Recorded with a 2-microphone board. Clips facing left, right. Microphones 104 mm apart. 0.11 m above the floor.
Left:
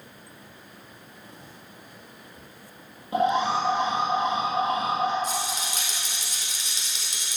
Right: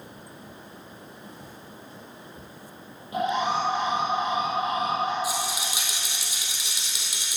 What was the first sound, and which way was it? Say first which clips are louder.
An alarm: left 2 dB; 30° left (ahead or behind).